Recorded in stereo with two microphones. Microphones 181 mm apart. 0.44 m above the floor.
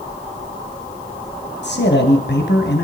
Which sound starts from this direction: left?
A man speaking, at 1.6 s.